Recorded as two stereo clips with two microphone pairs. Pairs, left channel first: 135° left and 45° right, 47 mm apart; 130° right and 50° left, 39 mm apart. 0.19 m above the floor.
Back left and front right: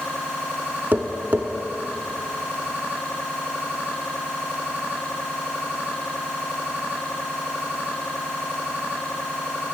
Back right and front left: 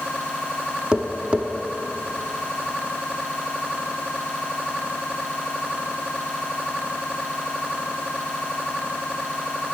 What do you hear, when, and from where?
0.9 s tapping: 10° right, 0.7 m